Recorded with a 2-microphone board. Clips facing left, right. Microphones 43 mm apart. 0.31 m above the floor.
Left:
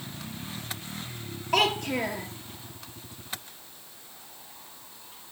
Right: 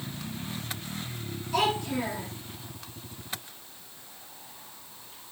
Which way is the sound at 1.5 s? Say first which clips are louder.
Left 2 dB; 55° left (ahead or behind).